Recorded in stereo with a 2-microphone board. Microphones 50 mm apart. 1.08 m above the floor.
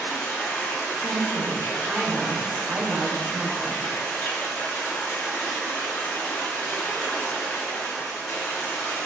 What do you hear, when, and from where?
0.0 s running water: 65° left (ahead or behind), 0.9 m
1.0 s a woman speaking: 20° right (ahead or behind), 0.7 m